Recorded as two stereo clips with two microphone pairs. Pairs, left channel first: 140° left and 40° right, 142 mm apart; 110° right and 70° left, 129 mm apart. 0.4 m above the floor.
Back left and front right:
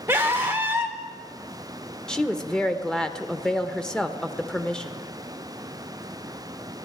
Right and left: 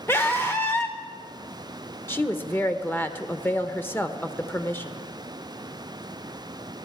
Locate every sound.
0.1 s a scream: 85° right, 1.0 m
2.1 s a woman speaking: 150° right, 0.9 m